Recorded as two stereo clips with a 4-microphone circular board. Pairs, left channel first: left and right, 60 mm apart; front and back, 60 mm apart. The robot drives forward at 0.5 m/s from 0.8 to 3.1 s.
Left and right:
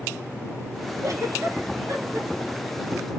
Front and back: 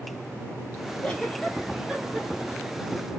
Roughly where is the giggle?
Ahead right.